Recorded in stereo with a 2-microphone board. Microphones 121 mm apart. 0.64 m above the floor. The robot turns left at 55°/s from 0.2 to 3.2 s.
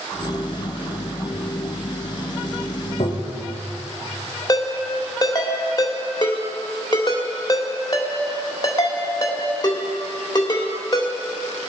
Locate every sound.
3.0 s tapping: 70° left (ahead or behind), 1.4 m; by 3.4 s 60° left (ahead or behind), 1.4 m
4.5 s a ringtone: 35° left (ahead or behind), 1.8 m